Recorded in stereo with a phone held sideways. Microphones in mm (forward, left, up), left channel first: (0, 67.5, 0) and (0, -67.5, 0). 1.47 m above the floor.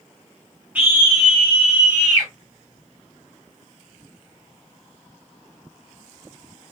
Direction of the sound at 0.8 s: 10° right (ahead or behind).